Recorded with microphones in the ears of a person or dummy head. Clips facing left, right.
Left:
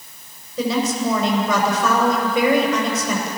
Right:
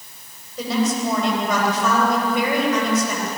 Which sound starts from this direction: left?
A woman speaking, at 0.6 s.